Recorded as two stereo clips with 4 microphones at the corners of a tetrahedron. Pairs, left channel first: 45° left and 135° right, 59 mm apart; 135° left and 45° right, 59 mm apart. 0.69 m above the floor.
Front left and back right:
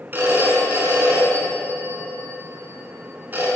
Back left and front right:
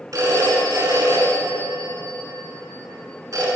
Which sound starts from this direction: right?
A phone ringing, at 0.1 s.